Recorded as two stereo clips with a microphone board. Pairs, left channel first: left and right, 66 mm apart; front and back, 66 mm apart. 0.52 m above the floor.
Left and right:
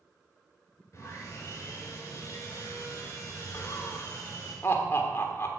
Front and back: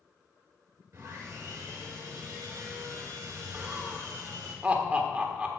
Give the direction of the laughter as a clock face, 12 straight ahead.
8 o'clock.